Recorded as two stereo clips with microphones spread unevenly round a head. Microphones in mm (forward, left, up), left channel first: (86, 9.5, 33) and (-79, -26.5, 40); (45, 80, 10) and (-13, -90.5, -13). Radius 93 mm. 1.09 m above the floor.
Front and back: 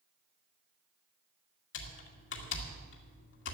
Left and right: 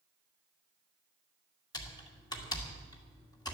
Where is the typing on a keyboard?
Straight ahead, 2 m.